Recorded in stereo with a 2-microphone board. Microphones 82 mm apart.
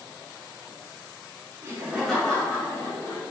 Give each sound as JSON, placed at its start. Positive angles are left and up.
{"t": 1.6, "sound": "laughter", "side_deg": -30, "distance_m": 1.0}